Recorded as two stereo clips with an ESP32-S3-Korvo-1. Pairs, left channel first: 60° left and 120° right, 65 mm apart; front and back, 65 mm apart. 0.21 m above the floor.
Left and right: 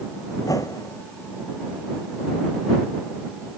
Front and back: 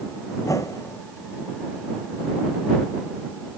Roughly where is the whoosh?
Ahead left.